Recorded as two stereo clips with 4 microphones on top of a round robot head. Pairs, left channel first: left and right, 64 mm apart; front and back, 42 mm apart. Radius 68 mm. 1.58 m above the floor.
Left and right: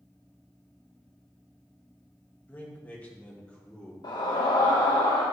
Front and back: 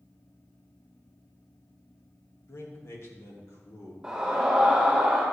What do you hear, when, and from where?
2.5 s a man speaking: 20° left, 2.5 m; by 3.9 s 10° left, 3.5 m
4.0 s a scream: 95° left, 1.6 m